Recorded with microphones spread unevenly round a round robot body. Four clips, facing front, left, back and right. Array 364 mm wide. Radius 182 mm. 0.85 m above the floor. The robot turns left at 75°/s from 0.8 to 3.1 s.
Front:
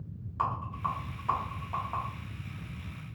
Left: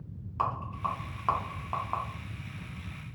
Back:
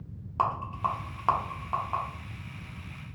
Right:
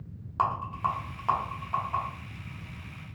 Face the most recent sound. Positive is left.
turn(degrees=35)